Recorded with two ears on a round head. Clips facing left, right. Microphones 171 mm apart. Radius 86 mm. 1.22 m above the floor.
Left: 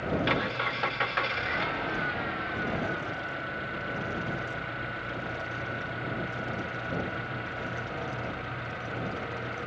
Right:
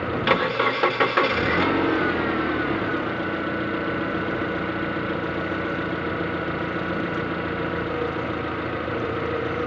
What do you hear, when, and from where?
0.0 s an engine running: 70° right (ahead or behind)